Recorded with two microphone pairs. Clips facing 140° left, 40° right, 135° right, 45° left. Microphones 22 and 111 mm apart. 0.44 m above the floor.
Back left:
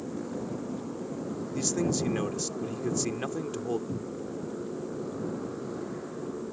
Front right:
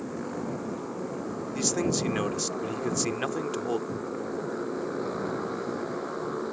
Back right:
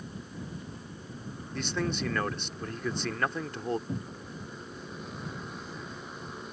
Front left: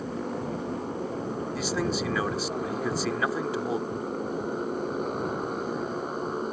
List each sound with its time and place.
0.0 s a motorcycle: 20° left; by 6.5 s straight ahead
1.5 s a man speaking: 30° right
3.9 s a cupboard door: 155° right